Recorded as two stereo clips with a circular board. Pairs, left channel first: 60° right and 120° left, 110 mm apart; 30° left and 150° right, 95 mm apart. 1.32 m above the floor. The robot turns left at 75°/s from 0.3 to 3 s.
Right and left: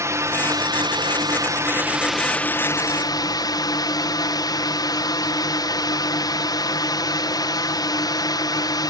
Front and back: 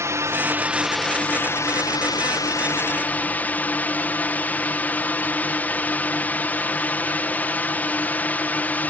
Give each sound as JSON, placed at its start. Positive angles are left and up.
{"t": 0.0, "sound": "a drone", "azimuth_deg": 170}